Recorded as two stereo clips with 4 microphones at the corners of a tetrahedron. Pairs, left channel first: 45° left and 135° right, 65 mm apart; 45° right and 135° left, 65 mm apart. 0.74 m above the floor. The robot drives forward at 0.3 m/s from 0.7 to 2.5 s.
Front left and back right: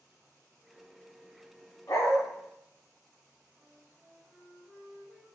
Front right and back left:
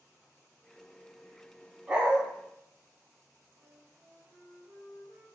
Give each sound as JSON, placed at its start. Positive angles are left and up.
{"t": 1.9, "sound": "a dog barking", "azimuth_deg": 60, "distance_m": 1.3}
{"t": 3.6, "sound": "a flute", "azimuth_deg": 155, "distance_m": 1.8}